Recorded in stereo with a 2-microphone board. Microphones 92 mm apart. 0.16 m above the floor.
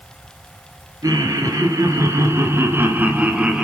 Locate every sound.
1.0 s laughter: 40° right (ahead or behind), 3 m; by 3.6 s 10° right (ahead or behind), 1.6 m